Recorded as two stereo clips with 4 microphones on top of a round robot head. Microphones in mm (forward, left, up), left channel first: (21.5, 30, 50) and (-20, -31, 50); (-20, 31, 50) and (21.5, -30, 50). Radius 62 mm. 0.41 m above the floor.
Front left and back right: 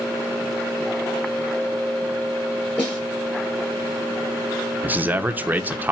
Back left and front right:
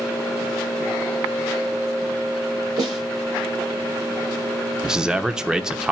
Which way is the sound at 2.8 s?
20° right.